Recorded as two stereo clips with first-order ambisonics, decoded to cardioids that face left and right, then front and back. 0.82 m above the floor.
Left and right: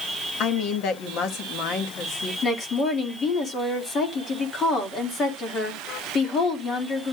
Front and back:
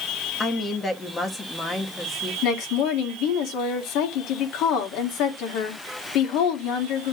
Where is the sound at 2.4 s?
30° left, 2 m.